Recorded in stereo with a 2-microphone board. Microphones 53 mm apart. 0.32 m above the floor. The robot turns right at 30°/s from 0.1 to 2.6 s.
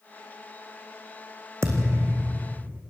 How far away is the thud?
About 3 m.